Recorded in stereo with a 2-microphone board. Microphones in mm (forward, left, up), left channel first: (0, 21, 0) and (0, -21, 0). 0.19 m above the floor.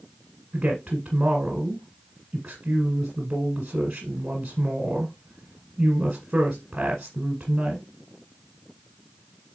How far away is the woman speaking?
About 1.5 m.